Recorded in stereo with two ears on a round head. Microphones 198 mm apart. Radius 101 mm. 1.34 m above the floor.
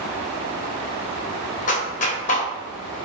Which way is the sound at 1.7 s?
35° left (ahead or behind).